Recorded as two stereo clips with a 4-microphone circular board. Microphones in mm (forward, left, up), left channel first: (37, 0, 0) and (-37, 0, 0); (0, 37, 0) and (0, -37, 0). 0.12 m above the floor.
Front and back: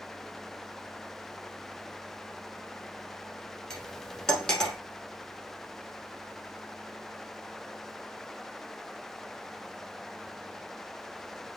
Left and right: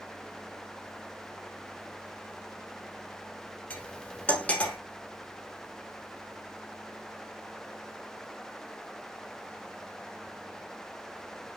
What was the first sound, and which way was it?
Cutlery clinking, 65° left.